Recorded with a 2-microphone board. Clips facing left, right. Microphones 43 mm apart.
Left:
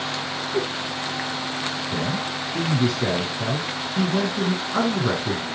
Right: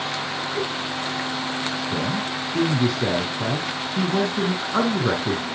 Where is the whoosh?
55° left (ahead or behind), 5.5 m.